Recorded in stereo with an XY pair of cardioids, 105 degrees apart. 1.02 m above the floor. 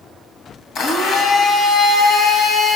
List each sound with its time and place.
0.8 s a blender: 70° left, 1.1 m